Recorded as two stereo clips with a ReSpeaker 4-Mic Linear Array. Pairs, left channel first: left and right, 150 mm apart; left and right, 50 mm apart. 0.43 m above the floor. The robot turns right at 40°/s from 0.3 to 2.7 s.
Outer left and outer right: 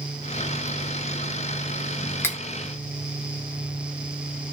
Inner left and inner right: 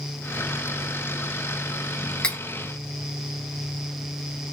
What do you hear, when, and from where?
2.2 s cutlery clinking: 15° left (ahead or behind), 0.5 m